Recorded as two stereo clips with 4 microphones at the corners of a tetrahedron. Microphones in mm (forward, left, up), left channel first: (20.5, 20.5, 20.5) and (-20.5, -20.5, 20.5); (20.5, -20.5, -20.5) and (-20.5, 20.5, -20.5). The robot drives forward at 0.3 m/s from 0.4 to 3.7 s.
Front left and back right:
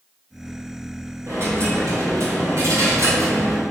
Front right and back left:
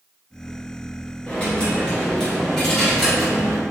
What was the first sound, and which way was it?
A dropped coin, 110° right.